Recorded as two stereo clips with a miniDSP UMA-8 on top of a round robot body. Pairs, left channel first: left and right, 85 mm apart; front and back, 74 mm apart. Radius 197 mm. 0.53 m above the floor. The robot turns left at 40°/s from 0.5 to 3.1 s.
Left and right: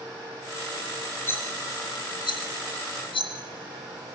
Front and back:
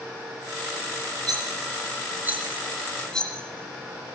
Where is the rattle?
155° left, 4 m; by 4.2 s 80° left, 4 m.